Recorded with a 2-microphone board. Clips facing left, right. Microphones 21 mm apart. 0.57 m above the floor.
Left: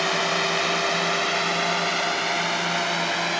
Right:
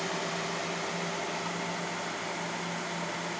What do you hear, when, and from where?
0.0 s a drone: 50° left (ahead or behind); by 3.4 s 70° left (ahead or behind)